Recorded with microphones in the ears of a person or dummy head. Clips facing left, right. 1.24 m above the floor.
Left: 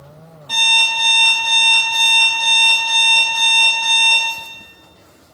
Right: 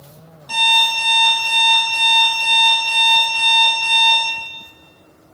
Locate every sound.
0.5 s an alarm clock: 55° right (ahead or behind), 1.3 m